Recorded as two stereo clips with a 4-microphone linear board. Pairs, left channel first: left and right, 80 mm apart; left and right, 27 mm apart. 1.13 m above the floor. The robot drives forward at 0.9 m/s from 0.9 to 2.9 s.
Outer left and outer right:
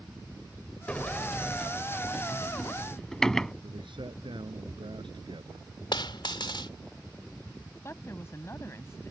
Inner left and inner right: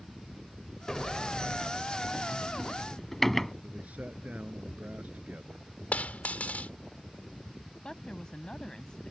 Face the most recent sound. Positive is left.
turn(degrees=30)  # may be behind; listen again after turning